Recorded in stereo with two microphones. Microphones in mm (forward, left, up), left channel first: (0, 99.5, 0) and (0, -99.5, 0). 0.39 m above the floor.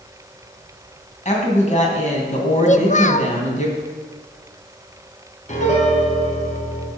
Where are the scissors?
I don't hear scissors.